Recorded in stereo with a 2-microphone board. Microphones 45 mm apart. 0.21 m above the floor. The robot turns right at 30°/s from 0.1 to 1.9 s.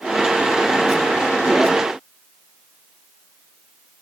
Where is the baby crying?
I don't hear a baby crying.